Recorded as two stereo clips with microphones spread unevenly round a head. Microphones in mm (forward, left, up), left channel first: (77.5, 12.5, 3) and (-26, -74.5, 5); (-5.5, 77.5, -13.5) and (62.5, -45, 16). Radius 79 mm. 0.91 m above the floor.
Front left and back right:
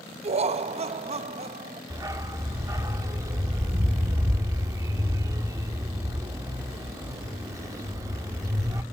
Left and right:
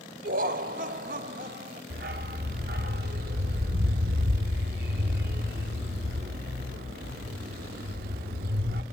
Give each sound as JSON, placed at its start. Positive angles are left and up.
{"t": 0.2, "sound": "laughter", "azimuth_deg": -105, "distance_m": 0.9}
{"t": 1.9, "sound": "a dog barking", "azimuth_deg": -75, "distance_m": 0.9}